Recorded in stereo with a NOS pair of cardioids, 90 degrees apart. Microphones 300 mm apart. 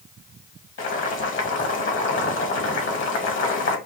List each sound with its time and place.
0.8 s boiling: 45° left, 2 m